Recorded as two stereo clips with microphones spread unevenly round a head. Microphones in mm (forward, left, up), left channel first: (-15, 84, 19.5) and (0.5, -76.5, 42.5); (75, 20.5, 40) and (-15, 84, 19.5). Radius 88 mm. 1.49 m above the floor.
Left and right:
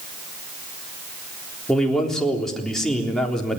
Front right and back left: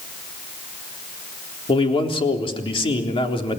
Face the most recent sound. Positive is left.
turn(degrees=5)